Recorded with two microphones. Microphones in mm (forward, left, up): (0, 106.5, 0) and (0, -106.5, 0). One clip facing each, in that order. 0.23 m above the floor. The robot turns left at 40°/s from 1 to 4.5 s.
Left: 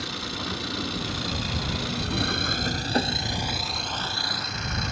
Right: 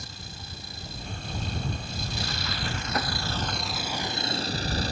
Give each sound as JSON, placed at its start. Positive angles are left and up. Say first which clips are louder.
{"t": 0.0, "sound": "an engine running", "louder": "left 12 dB", "azimuth_deg": 105}